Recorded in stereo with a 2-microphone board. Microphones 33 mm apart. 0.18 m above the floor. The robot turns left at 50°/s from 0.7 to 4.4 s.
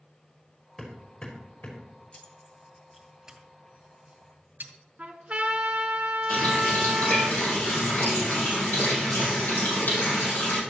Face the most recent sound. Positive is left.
turn(degrees=65)  # may be behind; listen again after turning